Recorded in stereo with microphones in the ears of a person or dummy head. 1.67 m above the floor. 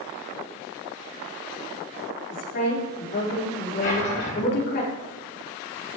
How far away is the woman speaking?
About 5 m.